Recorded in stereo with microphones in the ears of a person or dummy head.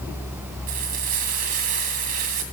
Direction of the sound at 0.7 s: 45° right (ahead or behind).